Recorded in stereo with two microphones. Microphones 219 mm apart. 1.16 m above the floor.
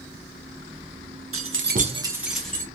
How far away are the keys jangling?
About 0.6 m.